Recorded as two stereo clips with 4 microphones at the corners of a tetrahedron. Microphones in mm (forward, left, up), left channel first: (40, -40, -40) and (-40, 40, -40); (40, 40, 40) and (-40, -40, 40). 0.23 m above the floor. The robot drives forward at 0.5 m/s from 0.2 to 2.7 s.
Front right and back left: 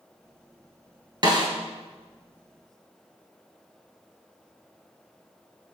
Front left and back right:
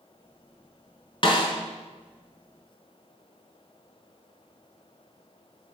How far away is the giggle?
No giggle in this recording.